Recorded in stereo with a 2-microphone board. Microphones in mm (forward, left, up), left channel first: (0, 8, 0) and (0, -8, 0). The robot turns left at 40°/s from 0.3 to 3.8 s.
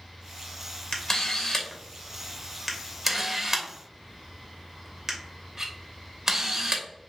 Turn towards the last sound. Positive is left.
turn(degrees=-25)  # may be behind; listen again after turning